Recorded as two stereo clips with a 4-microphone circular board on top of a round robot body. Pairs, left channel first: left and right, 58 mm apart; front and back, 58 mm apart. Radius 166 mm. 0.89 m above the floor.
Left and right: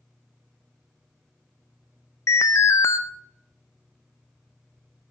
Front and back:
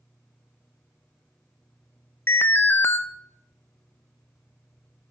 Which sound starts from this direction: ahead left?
An alarm, at 2.3 s.